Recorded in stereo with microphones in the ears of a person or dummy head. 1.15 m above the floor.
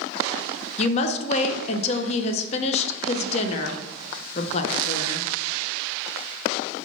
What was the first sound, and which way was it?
A woman speaking, 35° left (ahead or behind).